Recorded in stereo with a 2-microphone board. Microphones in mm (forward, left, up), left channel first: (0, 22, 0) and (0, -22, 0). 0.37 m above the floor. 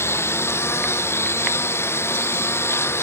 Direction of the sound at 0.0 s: 70° left (ahead or behind).